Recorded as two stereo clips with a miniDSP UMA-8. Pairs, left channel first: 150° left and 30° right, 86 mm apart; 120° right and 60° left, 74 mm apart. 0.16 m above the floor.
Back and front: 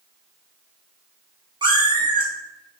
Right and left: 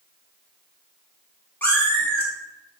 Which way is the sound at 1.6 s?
55° right.